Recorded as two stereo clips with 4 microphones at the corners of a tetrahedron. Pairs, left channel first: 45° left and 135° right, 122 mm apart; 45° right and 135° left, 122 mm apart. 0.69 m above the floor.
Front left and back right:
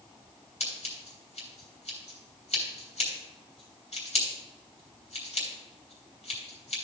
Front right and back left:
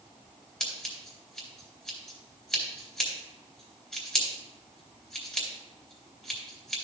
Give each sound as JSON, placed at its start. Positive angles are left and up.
{"t": 0.6, "sound": "scissors", "azimuth_deg": 40, "distance_m": 3.5}